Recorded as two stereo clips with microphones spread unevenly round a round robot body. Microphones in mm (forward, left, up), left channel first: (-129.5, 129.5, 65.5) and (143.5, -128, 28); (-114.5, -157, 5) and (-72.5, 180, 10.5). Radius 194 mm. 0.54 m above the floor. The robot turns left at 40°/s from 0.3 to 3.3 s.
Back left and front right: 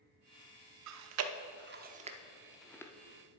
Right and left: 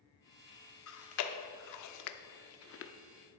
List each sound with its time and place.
0.9 s chewing: 60° right, 0.6 m; by 2.9 s 140° right, 0.6 m